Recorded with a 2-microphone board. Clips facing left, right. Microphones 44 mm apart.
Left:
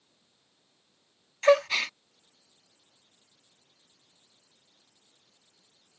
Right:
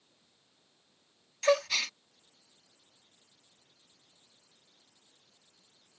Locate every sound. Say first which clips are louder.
1.4 s a gasp: left 6 dB; 30° left (ahead or behind)